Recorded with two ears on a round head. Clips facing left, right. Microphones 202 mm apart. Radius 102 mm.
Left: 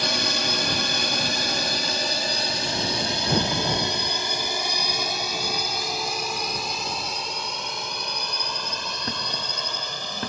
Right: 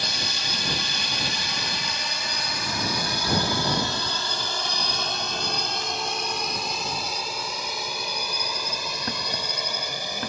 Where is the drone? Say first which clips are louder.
Left 7 dB; 55° left (ahead or behind); by 10.3 s 10° right (ahead or behind).